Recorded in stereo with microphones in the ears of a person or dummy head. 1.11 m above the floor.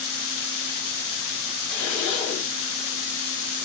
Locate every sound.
1.7 s a zipper: 60° left (ahead or behind), 1.2 m